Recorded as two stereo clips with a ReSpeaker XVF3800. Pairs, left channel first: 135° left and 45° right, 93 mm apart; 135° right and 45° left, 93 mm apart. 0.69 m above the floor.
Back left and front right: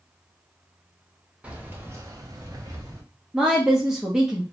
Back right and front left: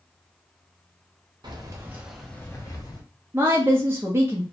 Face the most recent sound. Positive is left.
turn(degrees=35)